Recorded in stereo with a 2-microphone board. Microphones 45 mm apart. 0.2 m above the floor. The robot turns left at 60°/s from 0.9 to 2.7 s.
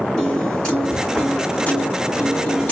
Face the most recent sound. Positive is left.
turn(degrees=50)